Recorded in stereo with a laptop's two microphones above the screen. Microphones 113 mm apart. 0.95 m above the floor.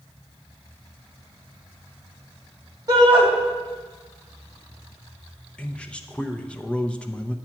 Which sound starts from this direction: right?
A shout, at 2.9 s.